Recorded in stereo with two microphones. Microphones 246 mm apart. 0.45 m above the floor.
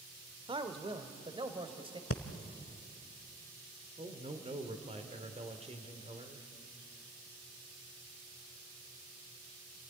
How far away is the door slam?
No door slam in this recording.